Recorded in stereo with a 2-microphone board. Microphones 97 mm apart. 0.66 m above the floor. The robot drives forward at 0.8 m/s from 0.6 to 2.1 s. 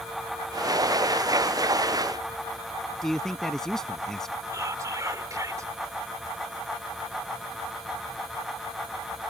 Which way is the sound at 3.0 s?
5° left (ahead or behind).